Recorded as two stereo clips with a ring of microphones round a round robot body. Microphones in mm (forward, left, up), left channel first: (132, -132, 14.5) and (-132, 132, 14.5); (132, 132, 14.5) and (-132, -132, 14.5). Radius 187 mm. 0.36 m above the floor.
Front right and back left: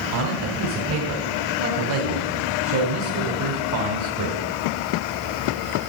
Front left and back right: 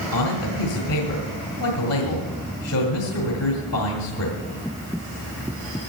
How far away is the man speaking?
About 2.0 m.